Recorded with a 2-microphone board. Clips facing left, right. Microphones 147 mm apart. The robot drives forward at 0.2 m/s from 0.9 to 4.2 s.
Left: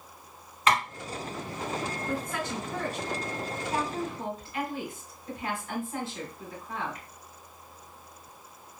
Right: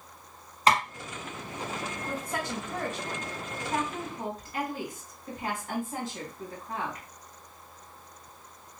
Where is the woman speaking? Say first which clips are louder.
Right 1 dB; 35° right (ahead or behind), 1.5 m; by 7.0 s 40° right (ahead or behind), 1.3 m.